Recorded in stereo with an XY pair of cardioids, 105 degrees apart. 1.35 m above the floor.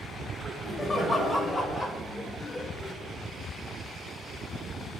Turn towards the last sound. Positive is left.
turn(degrees=20)